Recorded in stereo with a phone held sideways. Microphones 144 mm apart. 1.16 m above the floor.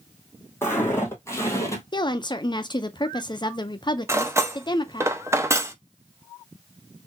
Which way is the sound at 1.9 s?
35° left (ahead or behind).